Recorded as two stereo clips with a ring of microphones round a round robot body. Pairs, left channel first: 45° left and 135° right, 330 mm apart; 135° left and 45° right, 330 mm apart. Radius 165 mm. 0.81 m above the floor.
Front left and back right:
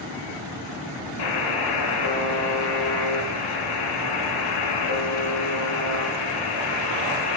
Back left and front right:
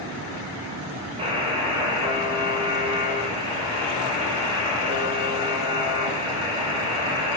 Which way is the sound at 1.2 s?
30° left.